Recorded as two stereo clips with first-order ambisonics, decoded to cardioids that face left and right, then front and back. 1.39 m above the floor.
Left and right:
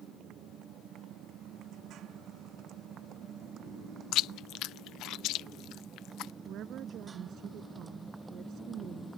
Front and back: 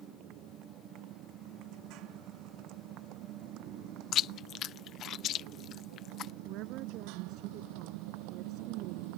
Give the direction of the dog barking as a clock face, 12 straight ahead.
I don't hear a dog barking.